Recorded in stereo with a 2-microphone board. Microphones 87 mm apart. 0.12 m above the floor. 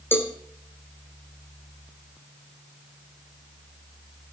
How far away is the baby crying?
I don't hear a baby crying.